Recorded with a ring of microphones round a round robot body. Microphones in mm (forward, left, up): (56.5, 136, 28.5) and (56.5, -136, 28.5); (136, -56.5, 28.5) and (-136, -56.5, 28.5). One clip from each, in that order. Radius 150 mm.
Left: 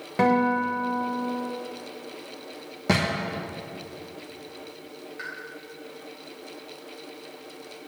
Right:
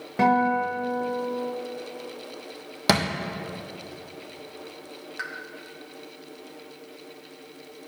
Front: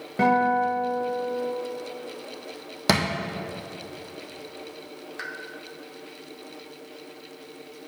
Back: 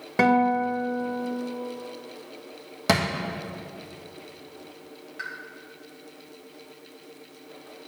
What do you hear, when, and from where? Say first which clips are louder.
0.2 s a guitar: right 1 dB, even; 165° left, 1.1 m
2.9 s a thud: right 2 dB, even; 75° right, 1.2 m
5.2 s a pop: right 2 dB, even; 55° right, 1.2 m